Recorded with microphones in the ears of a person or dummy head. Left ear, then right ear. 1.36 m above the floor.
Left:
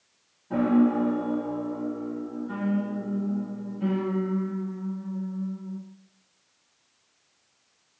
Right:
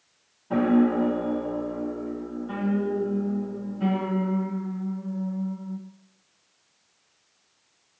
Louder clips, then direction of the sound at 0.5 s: Right 1 dB; 25° right (ahead or behind).